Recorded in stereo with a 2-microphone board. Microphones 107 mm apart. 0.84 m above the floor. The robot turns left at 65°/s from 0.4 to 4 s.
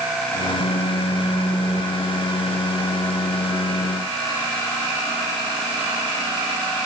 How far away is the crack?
No crack in this recording.